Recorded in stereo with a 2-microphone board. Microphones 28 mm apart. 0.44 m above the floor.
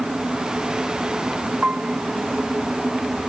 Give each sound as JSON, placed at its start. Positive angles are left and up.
{"t": 1.6, "sound": "a piano", "side_deg": -45}